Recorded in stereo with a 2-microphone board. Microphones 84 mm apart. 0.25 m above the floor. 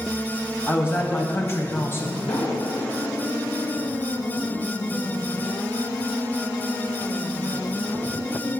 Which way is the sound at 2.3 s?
85° left.